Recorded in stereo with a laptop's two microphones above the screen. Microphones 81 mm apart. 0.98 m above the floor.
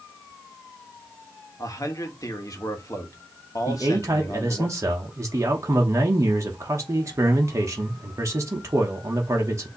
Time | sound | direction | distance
1.6 | a man speaking | 45° left (ahead or behind) | 1.1 m
3.7 | a man speaking | 40° right (ahead or behind) | 1.0 m